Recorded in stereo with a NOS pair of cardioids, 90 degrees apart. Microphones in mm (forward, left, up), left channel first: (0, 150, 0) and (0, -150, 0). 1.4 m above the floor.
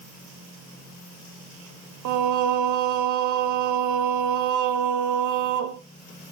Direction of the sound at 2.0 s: 70° right.